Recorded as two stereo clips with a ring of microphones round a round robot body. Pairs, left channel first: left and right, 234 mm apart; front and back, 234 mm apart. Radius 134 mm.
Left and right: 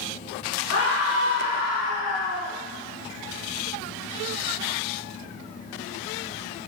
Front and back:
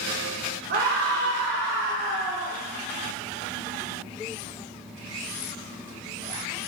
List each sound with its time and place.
0.7 s a scream: 130° left, 3.5 m; by 2.5 s 140° left, 5 m